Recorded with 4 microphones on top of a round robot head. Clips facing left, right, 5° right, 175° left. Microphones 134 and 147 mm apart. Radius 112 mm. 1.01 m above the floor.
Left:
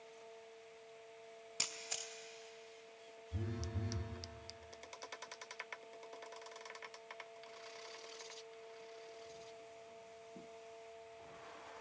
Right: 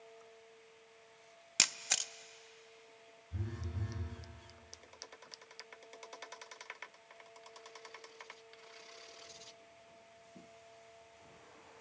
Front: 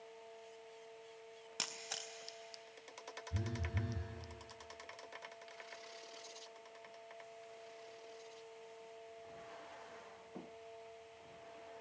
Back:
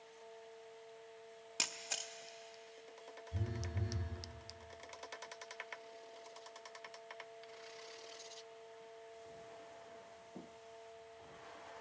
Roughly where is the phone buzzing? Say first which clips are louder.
Left 1 dB, front 1 dB; ahead.